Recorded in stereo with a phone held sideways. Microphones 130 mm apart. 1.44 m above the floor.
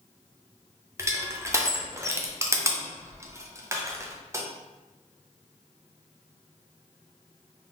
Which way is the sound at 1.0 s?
20° right (ahead or behind).